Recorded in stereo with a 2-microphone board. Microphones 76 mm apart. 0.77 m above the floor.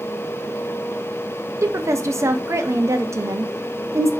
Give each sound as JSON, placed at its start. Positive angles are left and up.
{"t": 1.6, "sound": "a woman speaking", "side_deg": -40, "distance_m": 0.5}